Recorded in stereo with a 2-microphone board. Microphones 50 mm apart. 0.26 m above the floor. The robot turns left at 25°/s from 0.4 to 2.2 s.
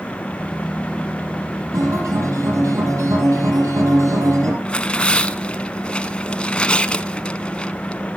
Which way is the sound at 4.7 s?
20° left (ahead or behind).